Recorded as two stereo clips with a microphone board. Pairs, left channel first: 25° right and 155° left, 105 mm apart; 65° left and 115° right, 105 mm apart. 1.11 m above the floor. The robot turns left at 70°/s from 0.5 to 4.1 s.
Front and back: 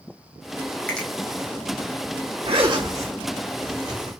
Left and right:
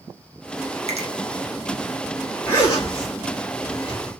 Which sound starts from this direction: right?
A finger snap, at 0.9 s.